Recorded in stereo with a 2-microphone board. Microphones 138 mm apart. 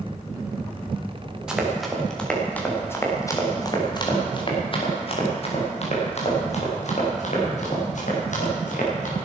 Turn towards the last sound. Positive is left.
turn(degrees=65)  # may be behind; listen again after turning